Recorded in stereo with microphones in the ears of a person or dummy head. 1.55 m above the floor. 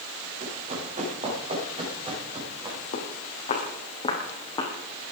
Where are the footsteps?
45° left (ahead or behind), 5 m; by 4.7 s 15° left (ahead or behind), 5.5 m.